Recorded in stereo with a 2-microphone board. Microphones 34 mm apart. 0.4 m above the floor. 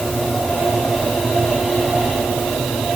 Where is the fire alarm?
I don't hear a fire alarm.